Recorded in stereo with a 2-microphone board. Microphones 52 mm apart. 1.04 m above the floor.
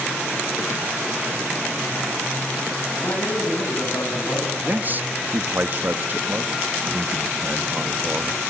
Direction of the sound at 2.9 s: 75° left (ahead or behind).